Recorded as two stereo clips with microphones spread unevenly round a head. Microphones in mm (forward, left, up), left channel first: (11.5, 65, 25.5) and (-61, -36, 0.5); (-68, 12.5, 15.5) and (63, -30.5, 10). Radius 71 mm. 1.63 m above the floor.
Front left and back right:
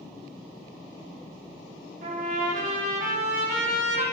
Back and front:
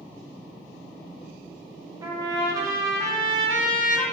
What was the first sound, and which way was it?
A trumpet, 85° right.